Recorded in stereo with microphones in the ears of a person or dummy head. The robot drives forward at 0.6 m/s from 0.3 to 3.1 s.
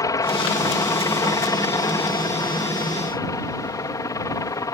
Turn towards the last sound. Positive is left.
turn(degrees=15)  # may be behind; listen again after turning